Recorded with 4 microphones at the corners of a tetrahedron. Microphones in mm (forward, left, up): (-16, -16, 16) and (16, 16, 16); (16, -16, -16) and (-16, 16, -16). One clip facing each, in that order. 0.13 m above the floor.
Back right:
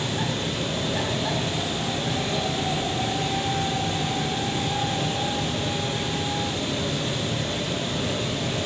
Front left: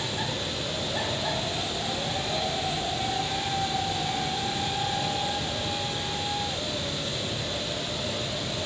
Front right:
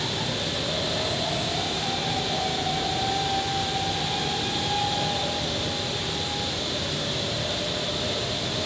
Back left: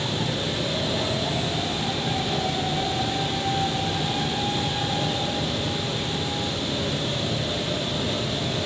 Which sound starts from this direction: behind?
Running water, at 0.0 s.